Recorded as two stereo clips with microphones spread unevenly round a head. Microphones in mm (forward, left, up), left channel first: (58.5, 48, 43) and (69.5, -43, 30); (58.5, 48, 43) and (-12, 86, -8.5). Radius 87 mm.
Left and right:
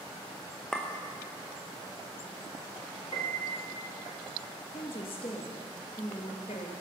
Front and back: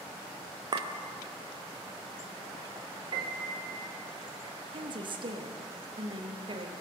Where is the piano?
155° left, 1.5 m.